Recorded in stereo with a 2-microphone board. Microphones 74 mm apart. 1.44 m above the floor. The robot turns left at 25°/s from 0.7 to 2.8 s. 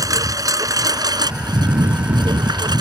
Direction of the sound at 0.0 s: 55° right.